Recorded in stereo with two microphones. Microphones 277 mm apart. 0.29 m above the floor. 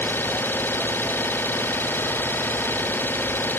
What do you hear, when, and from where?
0.0 s an engine running: 5° left (ahead or behind)